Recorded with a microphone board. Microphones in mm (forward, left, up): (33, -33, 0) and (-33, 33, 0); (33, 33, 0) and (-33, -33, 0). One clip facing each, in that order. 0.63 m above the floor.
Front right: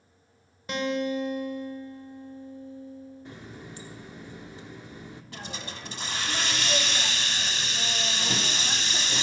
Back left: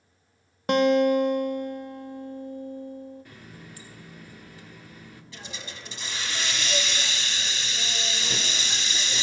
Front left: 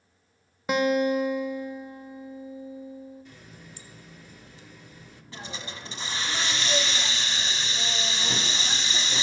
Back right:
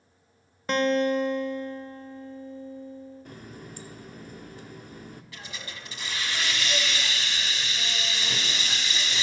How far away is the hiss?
About 1.0 m.